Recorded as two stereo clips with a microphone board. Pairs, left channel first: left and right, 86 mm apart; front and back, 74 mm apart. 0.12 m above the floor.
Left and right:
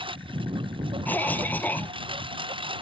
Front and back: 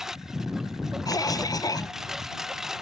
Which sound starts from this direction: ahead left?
A cough, at 1.1 s.